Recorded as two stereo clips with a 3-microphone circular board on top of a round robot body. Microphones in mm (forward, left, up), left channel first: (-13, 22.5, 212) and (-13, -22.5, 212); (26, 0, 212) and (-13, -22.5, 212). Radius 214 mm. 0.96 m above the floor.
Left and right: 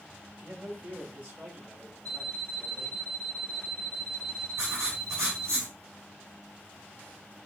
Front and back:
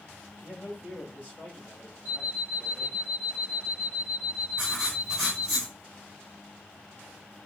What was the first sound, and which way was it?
A man speaking, 30° right.